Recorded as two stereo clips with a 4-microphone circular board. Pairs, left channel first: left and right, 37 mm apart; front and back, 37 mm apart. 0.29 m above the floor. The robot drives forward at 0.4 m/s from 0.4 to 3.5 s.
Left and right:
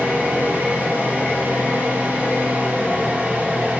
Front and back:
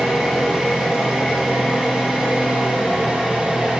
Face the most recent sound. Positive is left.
turn(degrees=-115)